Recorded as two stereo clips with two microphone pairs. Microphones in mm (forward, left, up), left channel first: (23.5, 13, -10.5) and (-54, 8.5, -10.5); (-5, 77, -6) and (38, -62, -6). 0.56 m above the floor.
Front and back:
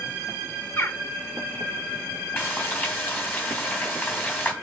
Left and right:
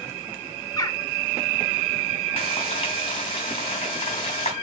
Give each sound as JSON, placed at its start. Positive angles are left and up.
{"t": 0.8, "sound": "a bird", "azimuth_deg": 50, "distance_m": 0.7}
{"t": 2.4, "sound": "frying", "azimuth_deg": 65, "distance_m": 3.0}